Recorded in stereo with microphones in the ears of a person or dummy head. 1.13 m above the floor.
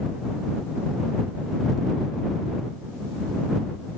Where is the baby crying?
No baby crying in this recording.